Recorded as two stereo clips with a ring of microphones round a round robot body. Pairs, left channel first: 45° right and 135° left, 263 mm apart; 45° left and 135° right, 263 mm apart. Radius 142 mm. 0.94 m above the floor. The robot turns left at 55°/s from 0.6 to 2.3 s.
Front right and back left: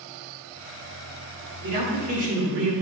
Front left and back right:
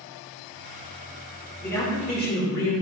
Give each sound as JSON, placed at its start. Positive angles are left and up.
{"t": 1.6, "sound": "a man speaking", "azimuth_deg": 130, "distance_m": 2.5}